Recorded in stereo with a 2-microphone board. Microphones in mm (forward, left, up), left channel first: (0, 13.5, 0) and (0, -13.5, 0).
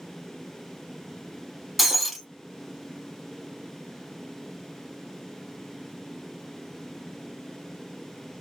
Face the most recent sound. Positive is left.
turn(degrees=-5)  # may be behind; listen again after turning